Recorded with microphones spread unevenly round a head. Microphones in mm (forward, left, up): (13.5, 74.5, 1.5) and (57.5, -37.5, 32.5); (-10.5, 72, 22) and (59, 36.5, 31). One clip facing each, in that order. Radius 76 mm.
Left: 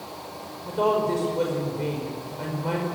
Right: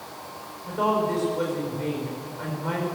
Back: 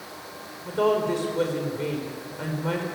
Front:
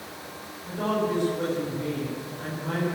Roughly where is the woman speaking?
Behind.